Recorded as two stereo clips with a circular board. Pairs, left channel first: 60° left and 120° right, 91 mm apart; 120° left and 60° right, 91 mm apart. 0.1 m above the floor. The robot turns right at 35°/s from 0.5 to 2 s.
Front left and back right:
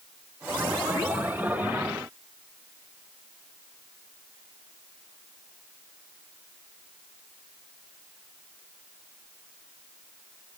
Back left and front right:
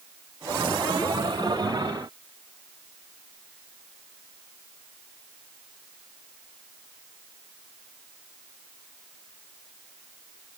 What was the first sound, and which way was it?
Only background noise.